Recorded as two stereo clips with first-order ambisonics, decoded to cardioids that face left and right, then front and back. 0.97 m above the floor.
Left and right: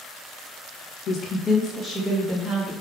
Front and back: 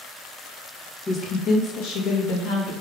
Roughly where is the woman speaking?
Ahead left.